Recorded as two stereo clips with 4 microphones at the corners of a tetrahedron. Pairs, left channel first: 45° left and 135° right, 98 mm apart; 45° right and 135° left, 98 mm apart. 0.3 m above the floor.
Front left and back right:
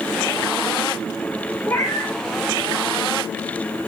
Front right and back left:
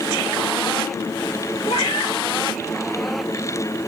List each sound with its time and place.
1.7 s a cat meowing: 25° right, 1.9 m